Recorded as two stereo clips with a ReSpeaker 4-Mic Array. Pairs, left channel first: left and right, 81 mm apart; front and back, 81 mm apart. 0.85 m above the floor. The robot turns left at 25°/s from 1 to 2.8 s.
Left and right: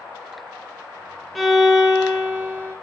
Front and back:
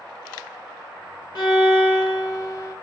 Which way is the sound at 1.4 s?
5° left.